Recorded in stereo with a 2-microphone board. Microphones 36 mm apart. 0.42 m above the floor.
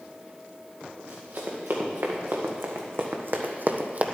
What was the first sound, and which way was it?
Running footsteps, 80° right.